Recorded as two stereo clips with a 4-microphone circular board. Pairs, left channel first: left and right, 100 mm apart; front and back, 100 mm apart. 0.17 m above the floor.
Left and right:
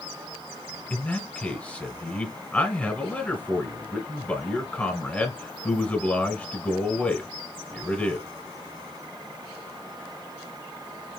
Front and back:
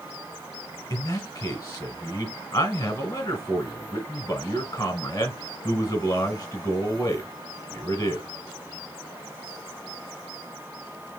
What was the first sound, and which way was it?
A man speaking, 30° left.